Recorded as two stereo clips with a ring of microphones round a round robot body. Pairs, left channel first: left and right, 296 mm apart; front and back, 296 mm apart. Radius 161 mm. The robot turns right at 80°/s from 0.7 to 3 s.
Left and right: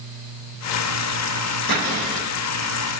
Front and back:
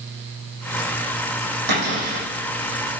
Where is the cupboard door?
145° left, 7 m; by 2.2 s 170° right, 7 m.